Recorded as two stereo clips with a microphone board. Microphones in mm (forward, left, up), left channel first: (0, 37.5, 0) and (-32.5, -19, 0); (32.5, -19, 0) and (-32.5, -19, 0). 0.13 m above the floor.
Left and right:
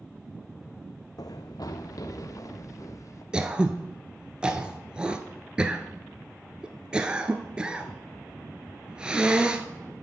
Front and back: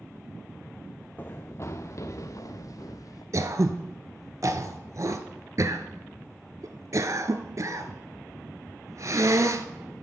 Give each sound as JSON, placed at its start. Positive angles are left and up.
{"t": 1.2, "sound": "running footsteps", "azimuth_deg": 60, "distance_m": 0.5}
{"t": 3.3, "sound": "throat clearing", "azimuth_deg": 170, "distance_m": 0.8}